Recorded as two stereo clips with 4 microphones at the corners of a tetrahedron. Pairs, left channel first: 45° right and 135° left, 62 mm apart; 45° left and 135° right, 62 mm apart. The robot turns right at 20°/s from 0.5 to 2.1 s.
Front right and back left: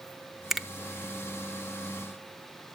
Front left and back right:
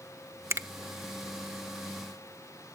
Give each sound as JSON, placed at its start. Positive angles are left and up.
{"t": 0.5, "sound": "a finger snap", "azimuth_deg": -140, "distance_m": 0.9}